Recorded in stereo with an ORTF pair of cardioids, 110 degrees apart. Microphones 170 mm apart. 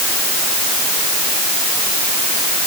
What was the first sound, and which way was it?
Only background noise.